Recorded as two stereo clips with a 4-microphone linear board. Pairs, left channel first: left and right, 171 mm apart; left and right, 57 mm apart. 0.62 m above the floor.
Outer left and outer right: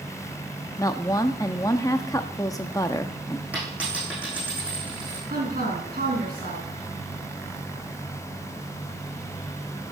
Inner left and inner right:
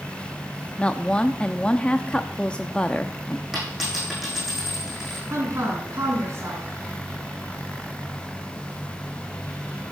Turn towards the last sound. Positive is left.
turn(degrees=-55)  # may be behind; listen again after turning